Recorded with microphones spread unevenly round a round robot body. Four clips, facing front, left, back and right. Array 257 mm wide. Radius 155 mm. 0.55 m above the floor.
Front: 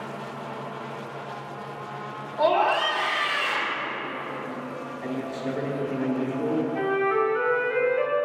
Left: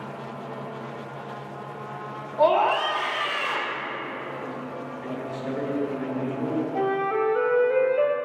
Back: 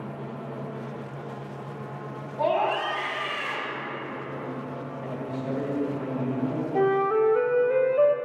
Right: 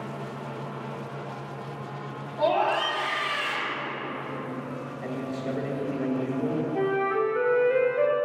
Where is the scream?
70° left, 2 m.